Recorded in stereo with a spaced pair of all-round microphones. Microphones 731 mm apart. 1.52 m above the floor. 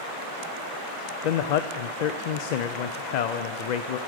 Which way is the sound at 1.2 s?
70° left (ahead or behind).